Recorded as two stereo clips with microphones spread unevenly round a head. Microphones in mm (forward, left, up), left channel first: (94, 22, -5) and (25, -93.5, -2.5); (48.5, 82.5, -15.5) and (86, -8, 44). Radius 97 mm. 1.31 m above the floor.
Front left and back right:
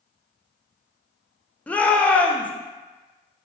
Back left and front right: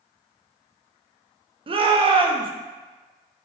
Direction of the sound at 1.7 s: 20° right.